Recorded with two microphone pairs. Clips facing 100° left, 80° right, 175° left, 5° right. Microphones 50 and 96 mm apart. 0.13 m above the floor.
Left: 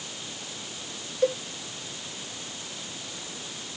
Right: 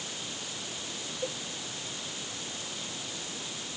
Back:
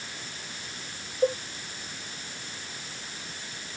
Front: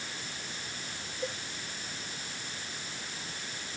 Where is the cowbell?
125° left.